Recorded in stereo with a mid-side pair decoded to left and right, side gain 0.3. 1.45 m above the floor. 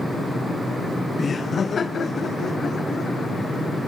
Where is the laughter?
50° left, 0.6 m; by 3.9 s 65° left, 4.5 m.